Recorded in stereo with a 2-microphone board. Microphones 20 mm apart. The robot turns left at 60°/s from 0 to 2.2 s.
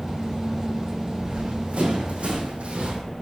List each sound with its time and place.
1.2 s running footsteps: 60° right (ahead or behind), 2.5 m